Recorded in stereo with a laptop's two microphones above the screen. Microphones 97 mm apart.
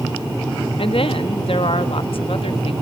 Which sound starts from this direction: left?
A woman speaking, at 0.8 s.